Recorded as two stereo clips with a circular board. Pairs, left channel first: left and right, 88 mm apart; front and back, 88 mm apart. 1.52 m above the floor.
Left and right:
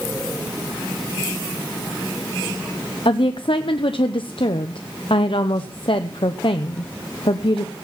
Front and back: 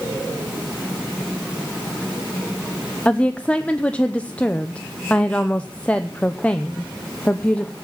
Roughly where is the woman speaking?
Left.